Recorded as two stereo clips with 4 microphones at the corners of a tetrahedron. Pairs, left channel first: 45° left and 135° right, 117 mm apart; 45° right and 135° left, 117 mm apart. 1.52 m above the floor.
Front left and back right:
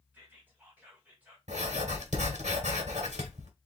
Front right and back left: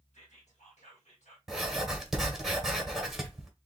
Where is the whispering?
60° right, 1.8 m.